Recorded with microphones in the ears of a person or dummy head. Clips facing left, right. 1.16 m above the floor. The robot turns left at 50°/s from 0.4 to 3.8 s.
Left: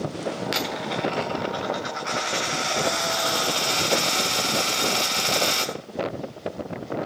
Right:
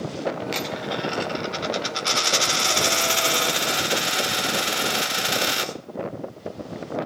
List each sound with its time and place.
0.5 s a dropped coin: 10° left, 1.2 m; by 5.7 s 155° right, 1.2 m